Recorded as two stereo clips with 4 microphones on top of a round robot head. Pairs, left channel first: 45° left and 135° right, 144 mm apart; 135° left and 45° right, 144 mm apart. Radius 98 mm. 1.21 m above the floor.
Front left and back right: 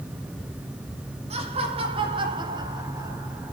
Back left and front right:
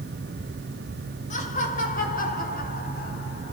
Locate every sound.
1.3 s laughter: 175° left, 3.5 m; by 3.5 s 145° left, 3 m